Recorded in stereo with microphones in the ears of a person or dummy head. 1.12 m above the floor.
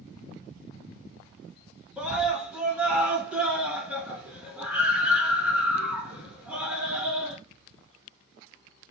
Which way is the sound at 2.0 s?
Centre (ahead or behind).